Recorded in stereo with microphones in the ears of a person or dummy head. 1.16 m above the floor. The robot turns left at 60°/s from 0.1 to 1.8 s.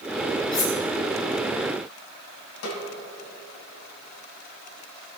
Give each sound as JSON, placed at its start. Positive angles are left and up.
{"t": 0.5, "sound": "cutlery clinking", "side_deg": 25, "distance_m": 2.0}
{"t": 2.6, "sound": "a snare drum", "side_deg": 75, "distance_m": 3.0}